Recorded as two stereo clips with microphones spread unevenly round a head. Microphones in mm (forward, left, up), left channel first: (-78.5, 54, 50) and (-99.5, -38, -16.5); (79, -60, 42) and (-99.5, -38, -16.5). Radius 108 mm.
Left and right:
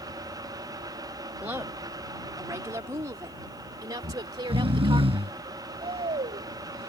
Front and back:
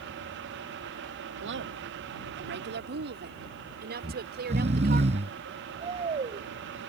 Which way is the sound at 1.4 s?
175° right.